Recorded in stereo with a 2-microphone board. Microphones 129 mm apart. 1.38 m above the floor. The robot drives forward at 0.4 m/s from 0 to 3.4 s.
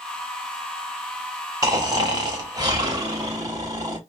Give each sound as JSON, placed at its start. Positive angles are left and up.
{"t": 1.6, "sound": "snoring", "side_deg": -30, "distance_m": 1.1}